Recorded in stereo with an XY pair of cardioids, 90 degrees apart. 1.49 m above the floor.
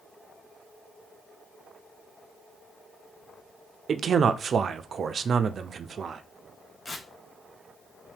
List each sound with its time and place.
3.9 s a man speaking: 50° right, 0.5 m
6.8 s tearing paper: 40° left, 0.9 m